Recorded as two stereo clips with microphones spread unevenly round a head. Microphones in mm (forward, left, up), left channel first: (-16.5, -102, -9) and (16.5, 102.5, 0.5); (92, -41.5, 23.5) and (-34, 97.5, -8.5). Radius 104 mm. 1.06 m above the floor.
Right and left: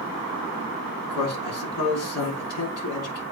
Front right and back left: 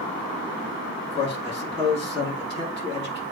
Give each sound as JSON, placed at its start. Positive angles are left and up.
{"t": 1.1, "sound": "a man speaking", "azimuth_deg": -115, "distance_m": 3.5}